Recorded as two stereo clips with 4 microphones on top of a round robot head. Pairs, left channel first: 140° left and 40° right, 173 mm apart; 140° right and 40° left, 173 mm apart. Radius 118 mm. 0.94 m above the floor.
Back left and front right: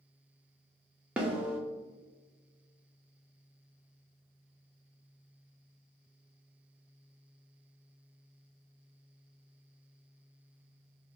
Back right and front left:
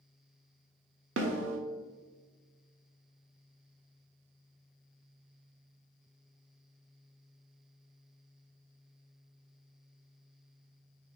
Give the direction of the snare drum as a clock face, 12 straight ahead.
10 o'clock.